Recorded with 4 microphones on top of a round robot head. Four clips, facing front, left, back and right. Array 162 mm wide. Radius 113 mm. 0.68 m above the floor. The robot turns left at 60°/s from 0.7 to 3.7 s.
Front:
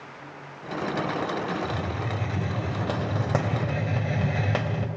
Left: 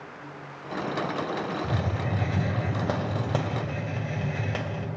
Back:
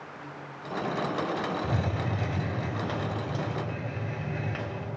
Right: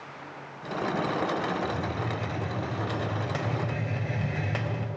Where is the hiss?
135° left, 1.8 m; by 4.9 s 10° left, 1.8 m.